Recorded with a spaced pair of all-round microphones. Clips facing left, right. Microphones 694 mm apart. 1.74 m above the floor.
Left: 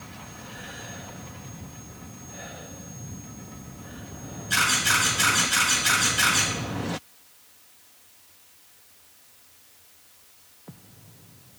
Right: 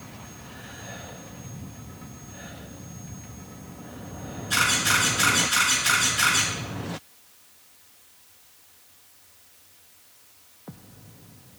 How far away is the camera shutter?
About 3.5 m.